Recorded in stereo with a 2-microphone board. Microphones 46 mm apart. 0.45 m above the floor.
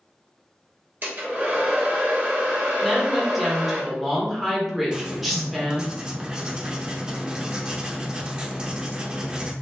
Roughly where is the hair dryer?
Right.